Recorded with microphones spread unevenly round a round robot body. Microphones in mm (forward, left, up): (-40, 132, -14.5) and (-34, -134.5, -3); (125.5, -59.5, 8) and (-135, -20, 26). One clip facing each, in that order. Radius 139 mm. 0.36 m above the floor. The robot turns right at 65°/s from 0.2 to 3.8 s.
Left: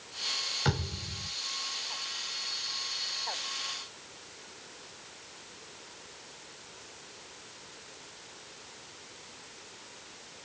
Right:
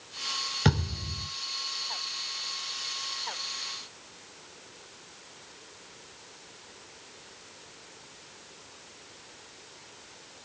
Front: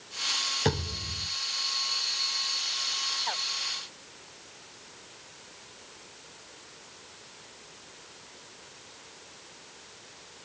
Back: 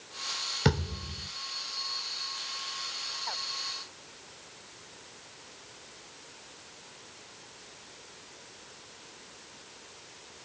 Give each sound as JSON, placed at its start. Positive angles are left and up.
{"t": 0.7, "sound": "a thud", "azimuth_deg": -120, "distance_m": 6.0}